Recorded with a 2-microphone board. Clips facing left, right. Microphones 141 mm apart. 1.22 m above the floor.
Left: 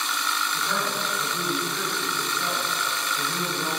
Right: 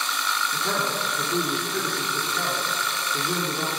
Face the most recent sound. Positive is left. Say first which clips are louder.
# right 3 dB
turn(degrees=-75)  # may be behind; listen again after turning